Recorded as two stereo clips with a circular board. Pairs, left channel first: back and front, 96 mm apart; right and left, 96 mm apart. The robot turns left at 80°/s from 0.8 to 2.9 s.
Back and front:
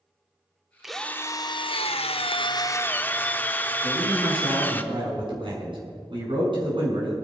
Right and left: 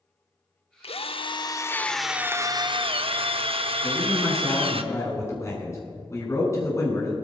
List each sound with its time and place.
0.8 s a drill: 85° right, 0.8 m; by 4.8 s 110° left, 0.8 m
3.8 s a man speaking: 30° right, 6.5 m